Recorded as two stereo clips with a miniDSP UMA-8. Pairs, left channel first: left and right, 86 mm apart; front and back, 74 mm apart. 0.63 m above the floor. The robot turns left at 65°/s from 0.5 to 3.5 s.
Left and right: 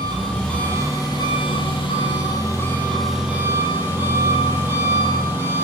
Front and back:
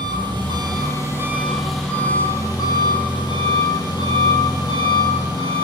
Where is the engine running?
170° left, 7.5 m; by 5.6 s 25° right, 7.5 m.